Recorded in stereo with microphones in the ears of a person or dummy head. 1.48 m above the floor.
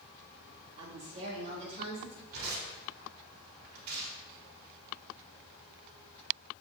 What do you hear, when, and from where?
0.8 s a woman speaking: 35° right (ahead or behind), 2 m; by 2.2 s 40° right (ahead or behind), 3.5 m
2.3 s tearing paper: 55° right (ahead or behind), 3 m